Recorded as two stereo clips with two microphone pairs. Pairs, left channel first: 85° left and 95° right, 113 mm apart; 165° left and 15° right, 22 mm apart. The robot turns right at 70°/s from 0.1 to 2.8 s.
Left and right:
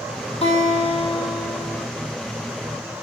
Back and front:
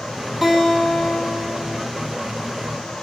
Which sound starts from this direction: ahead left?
A guitar, at 0.4 s.